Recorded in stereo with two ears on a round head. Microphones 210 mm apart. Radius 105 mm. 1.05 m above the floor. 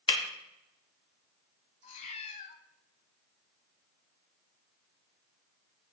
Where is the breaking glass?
25° left (ahead or behind), 1.3 m.